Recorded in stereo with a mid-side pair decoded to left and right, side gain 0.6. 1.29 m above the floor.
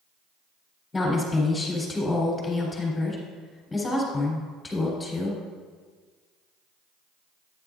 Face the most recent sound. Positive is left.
turn(degrees=20)